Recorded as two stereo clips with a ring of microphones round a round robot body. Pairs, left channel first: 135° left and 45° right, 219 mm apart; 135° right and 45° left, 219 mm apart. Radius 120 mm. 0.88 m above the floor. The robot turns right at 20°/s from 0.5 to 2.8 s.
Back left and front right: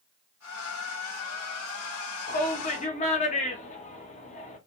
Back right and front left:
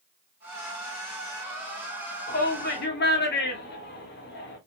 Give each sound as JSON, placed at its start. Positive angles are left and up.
{"t": 2.3, "sound": "a shout", "azimuth_deg": 180, "distance_m": 1.5}